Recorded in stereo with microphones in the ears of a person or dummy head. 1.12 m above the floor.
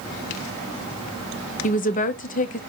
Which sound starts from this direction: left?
A woman speaking, at 1.6 s.